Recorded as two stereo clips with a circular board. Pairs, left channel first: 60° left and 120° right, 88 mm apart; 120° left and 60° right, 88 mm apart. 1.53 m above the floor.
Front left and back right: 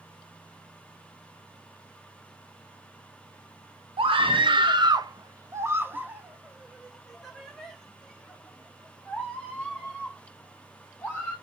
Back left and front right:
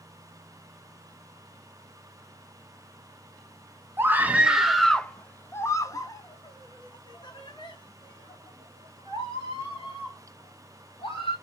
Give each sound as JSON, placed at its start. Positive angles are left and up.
{"t": 4.0, "sound": "a scream", "azimuth_deg": -125, "distance_m": 1.0}